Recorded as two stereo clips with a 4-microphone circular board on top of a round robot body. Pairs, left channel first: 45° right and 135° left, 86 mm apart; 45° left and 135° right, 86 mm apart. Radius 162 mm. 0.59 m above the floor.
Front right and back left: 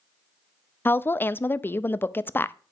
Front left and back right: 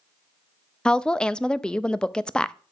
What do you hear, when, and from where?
0.8 s a woman speaking: 20° right, 0.5 m